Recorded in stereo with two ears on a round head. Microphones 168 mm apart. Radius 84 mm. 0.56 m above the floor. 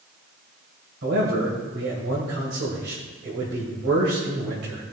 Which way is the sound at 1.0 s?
65° right (ahead or behind).